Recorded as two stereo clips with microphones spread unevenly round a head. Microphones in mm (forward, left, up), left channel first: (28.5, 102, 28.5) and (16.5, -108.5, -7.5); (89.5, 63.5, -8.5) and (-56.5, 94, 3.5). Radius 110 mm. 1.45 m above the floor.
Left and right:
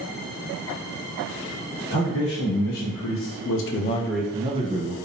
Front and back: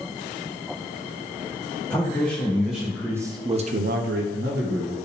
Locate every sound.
1.9 s a man speaking: 70° left, 1.9 m; by 4.9 s 150° right, 1.2 m